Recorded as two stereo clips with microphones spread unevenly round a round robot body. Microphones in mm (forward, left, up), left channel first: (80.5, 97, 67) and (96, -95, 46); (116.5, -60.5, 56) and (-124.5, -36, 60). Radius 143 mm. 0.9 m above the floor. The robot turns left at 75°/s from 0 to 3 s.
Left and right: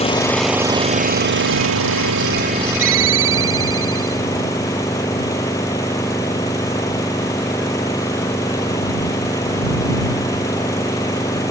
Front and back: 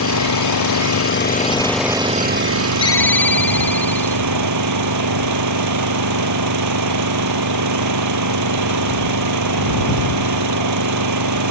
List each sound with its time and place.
0.0 s an engine running: 40° left; by 11.5 s 175° left
2.8 s a ringtone: 75° right; by 4.2 s 90° right